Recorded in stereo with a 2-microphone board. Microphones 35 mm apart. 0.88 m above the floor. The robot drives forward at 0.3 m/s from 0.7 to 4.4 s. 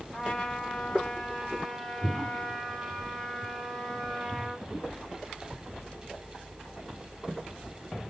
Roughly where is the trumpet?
Left.